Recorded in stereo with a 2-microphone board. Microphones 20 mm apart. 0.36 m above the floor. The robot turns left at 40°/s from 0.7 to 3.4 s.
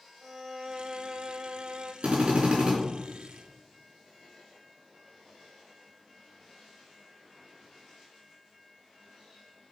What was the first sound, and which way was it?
A violin, 30° right.